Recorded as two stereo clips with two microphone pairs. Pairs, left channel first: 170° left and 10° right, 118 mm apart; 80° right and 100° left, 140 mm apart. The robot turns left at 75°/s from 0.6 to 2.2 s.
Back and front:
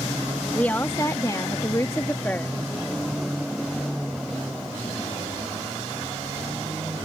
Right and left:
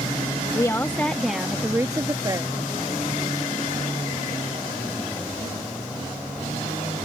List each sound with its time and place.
0.5 s a woman speaking: 125° right; by 2.5 s 115° left